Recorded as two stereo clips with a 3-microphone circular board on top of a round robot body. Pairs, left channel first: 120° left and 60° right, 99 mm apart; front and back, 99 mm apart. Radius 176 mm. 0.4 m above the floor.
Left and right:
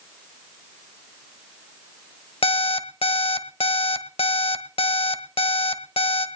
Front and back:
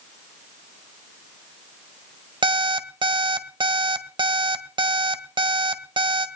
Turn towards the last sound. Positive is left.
turn(degrees=140)